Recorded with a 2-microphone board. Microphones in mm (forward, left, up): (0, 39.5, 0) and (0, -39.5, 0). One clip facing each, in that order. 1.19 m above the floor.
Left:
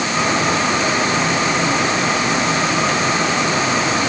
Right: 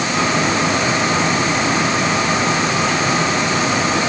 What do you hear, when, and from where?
Only background noise.